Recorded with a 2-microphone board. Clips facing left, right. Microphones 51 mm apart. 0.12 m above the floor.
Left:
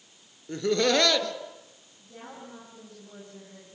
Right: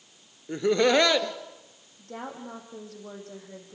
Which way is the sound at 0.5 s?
20° right (ahead or behind).